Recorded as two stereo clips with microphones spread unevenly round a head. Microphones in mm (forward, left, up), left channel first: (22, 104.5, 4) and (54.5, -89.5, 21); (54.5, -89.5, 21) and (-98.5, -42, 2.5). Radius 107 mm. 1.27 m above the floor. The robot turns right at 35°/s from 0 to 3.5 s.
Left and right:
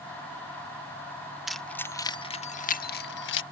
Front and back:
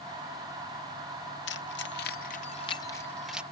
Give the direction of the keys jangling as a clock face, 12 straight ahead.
12 o'clock.